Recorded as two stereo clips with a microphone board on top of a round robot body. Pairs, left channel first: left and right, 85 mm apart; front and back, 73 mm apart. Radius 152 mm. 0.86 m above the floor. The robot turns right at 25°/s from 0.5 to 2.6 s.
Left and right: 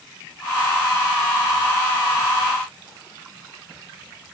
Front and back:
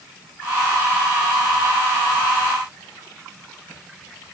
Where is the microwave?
I don't hear a microwave.